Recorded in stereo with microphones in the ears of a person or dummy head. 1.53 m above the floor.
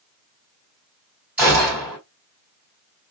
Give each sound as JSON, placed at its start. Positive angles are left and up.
{"t": 1.4, "sound": "a gunshot", "side_deg": -10, "distance_m": 1.5}